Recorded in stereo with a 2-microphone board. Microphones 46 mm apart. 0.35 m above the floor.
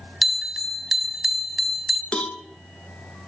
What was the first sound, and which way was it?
A bell, 5° right (ahead or behind).